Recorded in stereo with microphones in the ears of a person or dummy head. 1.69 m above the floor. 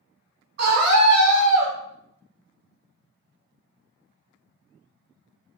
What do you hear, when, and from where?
0.6 s a scream: 55° right (ahead or behind), 2 m